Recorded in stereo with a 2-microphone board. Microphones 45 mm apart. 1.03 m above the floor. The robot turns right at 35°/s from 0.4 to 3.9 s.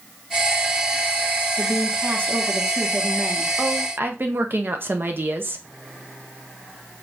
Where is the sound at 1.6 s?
125° right, 1.0 m; by 3.5 s 60° right, 1.0 m.